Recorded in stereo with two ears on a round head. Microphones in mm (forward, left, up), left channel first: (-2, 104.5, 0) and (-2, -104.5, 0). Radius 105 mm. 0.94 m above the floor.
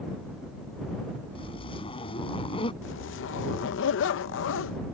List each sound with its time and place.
1.4 s a zipper: 25° left (ahead or behind)
2.8 s a zipper: 55° left (ahead or behind)